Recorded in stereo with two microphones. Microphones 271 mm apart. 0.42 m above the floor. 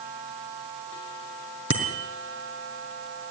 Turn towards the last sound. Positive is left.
turn(degrees=50)  # may be behind; listen again after turning